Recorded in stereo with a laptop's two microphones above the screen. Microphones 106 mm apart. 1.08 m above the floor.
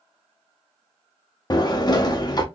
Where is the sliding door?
40° left (ahead or behind), 0.6 m.